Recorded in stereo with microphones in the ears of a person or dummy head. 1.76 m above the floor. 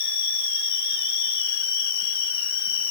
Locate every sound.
0.0 s an insect: 75° left (ahead or behind), 9.5 m